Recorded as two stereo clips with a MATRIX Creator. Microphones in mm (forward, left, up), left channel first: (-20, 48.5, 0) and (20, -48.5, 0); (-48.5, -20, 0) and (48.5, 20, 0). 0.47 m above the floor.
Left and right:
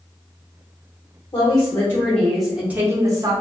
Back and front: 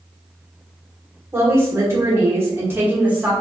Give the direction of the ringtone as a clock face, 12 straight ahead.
I don't hear a ringtone.